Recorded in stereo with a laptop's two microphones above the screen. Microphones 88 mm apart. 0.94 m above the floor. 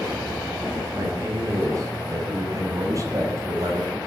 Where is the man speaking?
35° right (ahead or behind), 7 m.